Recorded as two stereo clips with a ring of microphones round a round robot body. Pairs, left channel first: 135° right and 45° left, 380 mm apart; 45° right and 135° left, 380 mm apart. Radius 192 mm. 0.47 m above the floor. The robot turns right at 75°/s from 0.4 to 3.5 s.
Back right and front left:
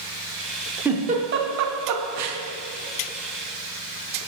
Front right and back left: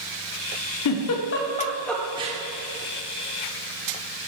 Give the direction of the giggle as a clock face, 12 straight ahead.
1 o'clock.